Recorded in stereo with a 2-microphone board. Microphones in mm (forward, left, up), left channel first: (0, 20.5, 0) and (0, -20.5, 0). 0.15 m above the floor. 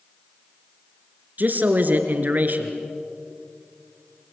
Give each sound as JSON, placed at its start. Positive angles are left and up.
{"t": 1.4, "sound": "a man speaking", "side_deg": -45, "distance_m": 2.0}